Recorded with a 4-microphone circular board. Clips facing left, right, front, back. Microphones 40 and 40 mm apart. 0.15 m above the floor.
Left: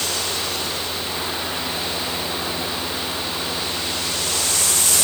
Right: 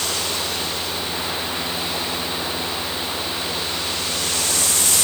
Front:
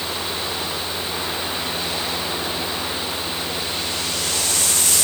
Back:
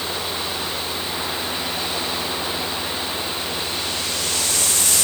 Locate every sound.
Only background noise.